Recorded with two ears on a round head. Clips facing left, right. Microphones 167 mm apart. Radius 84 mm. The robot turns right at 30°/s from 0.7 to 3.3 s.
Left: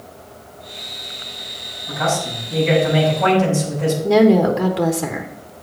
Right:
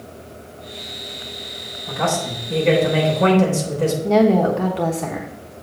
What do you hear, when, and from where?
1.9 s a man speaking: 110° right, 3.5 m; by 3.9 s 70° right, 3.5 m
4.0 s a woman speaking: 15° left (ahead or behind), 1.0 m